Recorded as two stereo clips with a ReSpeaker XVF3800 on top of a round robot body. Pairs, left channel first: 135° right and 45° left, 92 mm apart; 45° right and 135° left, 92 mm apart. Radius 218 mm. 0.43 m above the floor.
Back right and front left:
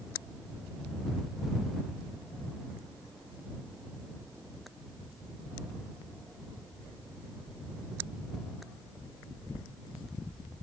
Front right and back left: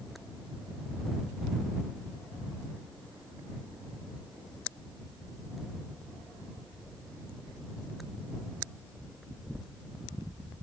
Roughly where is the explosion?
I don't hear an explosion.